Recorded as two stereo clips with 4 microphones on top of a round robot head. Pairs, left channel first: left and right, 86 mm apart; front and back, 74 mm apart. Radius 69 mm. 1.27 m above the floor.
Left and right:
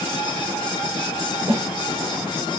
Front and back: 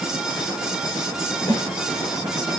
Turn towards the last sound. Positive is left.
turn(degrees=-45)